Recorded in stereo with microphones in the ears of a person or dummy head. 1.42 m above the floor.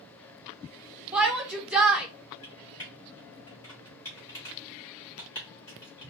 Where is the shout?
Centre (ahead or behind), 0.6 m.